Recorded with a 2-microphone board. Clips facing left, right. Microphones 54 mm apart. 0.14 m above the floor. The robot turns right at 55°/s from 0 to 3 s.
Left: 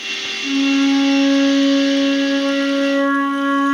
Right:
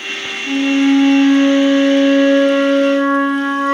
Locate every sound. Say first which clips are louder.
0.4 s a flute: right 2 dB; 145° left, 1.4 m; by 3.7 s 75° right, 1.4 m